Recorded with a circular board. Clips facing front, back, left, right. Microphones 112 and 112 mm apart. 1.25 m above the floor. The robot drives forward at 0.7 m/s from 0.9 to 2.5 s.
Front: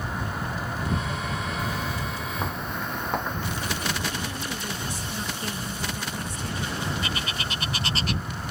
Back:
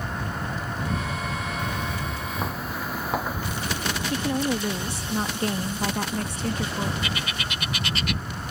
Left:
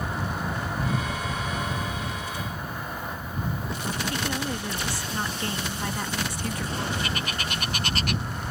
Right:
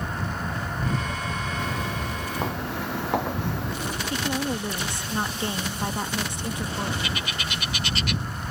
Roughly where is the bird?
Ahead left.